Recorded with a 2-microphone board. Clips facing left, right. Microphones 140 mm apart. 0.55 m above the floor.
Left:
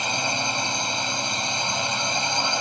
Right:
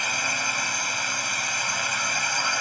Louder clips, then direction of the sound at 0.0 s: Left 4 dB; 25° left (ahead or behind).